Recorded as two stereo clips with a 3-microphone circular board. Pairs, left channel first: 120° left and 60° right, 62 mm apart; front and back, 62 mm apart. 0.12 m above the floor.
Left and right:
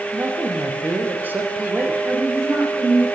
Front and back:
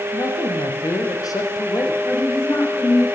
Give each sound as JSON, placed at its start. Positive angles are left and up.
{"t": 0.1, "sound": "a man speaking", "azimuth_deg": -5, "distance_m": 5.0}
{"t": 2.0, "sound": "a woman speaking", "azimuth_deg": -25, "distance_m": 9.5}